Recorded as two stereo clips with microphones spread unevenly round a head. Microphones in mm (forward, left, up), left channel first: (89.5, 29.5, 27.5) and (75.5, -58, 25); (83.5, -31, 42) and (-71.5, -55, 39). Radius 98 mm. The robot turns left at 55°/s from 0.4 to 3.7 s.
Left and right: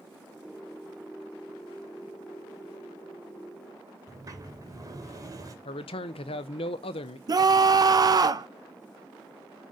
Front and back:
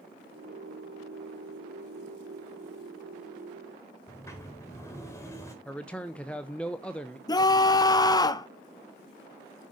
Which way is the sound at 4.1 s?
60° right.